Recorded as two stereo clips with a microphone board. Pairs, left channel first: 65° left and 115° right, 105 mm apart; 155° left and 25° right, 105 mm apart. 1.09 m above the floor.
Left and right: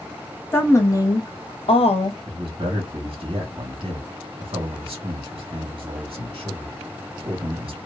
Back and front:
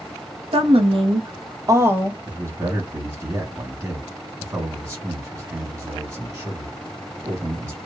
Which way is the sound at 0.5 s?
5° right.